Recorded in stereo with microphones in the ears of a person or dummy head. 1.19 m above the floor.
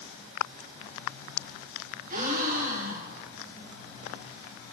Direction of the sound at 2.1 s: 45° right (ahead or behind).